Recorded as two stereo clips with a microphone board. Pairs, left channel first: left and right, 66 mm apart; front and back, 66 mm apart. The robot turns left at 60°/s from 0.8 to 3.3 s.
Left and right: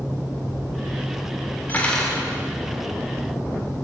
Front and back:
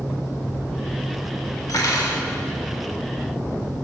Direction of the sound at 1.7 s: 25° left.